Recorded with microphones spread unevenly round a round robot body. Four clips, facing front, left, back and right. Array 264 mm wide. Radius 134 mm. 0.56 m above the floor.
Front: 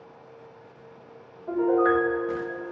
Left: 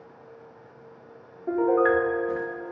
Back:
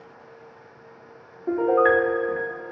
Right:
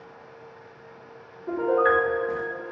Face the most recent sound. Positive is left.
turn(degrees=165)